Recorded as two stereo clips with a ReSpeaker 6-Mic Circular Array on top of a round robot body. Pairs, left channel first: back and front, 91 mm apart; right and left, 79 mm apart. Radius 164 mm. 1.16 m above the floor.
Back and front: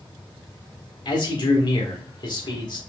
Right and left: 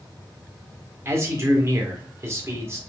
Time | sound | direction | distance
1.1 | a man speaking | 145° left | 1.6 m